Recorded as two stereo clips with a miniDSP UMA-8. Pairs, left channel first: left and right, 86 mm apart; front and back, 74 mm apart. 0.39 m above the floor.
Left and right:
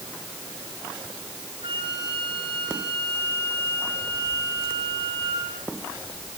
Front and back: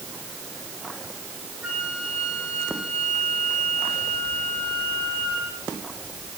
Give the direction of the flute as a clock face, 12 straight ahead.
3 o'clock.